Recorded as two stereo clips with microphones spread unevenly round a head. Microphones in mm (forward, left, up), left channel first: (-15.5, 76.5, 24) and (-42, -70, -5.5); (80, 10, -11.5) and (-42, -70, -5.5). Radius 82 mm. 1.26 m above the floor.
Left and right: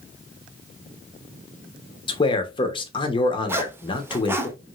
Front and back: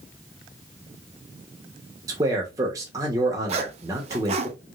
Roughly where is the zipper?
Behind.